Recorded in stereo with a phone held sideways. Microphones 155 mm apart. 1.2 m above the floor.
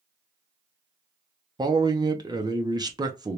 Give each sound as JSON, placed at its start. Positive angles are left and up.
{"t": 1.6, "sound": "a man speaking", "side_deg": -25, "distance_m": 0.7}